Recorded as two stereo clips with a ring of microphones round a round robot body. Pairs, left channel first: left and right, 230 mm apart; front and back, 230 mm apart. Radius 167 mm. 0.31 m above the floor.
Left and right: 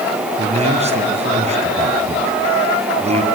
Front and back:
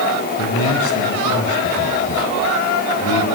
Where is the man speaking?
30° right, 3.5 m.